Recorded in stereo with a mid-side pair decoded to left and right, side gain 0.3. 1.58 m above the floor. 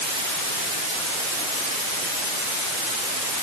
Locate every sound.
Only background noise.